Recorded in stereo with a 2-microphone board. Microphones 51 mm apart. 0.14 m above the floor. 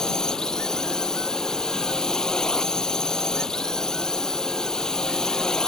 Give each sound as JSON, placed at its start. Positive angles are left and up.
{"t": 0.0, "sound": "a drone", "side_deg": 10}